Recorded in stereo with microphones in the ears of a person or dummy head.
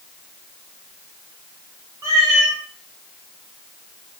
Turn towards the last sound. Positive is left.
turn(degrees=-15)  # may be behind; listen again after turning